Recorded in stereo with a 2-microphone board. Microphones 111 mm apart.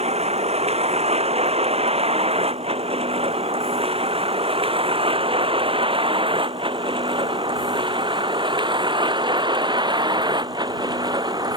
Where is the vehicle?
65° right (ahead or behind); by 11.6 s 40° right (ahead or behind).